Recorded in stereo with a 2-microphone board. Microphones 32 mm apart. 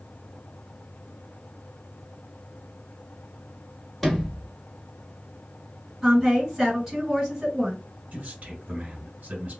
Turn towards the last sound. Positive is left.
turn(degrees=-40)  # may be behind; listen again after turning